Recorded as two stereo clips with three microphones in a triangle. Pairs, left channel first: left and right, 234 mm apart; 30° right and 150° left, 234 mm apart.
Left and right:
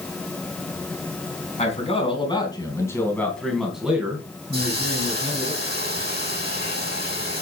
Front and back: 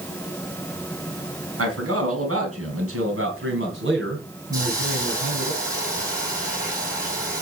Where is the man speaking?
150° left, 3 m; by 5.5 s 150° right, 3 m.